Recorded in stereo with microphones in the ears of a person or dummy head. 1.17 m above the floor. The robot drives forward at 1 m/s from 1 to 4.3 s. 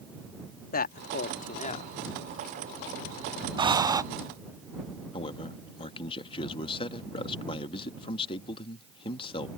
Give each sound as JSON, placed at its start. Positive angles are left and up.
{"t": 0.7, "sound": "a man speaking", "side_deg": 45}
{"t": 3.6, "sound": "breathing", "side_deg": -20}
{"t": 5.1, "sound": "a man speaking", "side_deg": 30}